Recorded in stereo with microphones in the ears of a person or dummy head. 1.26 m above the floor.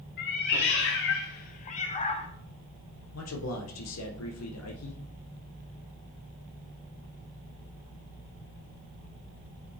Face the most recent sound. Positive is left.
turn(degrees=80)